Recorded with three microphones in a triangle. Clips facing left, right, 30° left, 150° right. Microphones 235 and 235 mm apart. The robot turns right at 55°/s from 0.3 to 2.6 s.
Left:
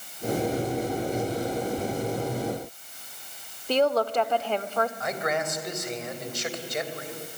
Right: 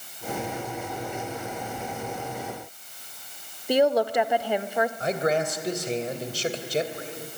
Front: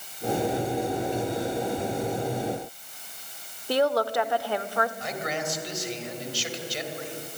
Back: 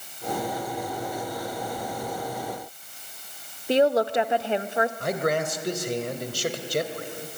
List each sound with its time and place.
3.7 s a woman speaking: 145° right, 0.8 m
5.0 s a man speaking: 140° right, 2.5 m